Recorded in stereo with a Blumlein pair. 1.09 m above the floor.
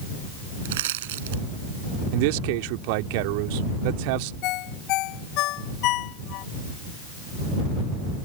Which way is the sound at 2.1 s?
45° right.